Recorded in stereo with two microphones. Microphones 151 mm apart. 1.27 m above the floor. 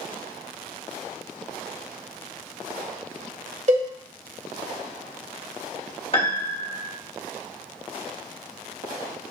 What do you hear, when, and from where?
3.7 s a cowbell: 55° right (ahead or behind), 1.6 m
6.1 s a piano: 40° left (ahead or behind), 1.3 m